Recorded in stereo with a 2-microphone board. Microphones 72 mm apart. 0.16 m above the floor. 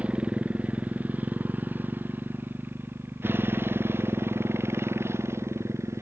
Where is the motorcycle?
15° right (ahead or behind); by 6.0 s 35° right (ahead or behind).